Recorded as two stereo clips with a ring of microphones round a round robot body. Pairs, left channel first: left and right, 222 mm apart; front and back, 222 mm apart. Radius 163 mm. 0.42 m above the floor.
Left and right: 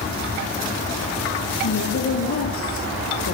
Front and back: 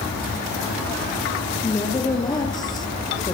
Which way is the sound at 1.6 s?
70° left.